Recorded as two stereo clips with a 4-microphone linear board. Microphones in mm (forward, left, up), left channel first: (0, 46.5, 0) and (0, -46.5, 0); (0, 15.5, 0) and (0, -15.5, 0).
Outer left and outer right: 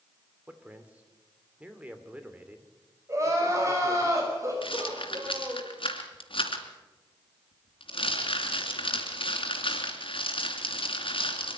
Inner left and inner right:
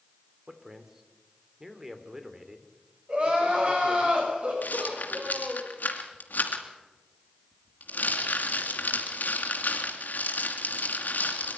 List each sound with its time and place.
0.5 s a man speaking: 15° right (ahead or behind), 2.5 m
3.1 s crying: 35° right (ahead or behind), 5.5 m
4.6 s a rattle: 75° left (ahead or behind), 2.5 m